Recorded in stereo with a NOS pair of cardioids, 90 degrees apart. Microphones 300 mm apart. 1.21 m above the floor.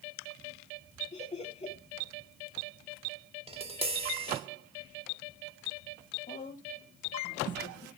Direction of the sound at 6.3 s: 25° left.